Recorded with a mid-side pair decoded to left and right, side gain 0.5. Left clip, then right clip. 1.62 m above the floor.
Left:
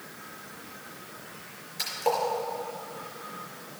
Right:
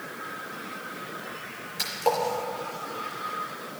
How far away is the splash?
About 4.5 m.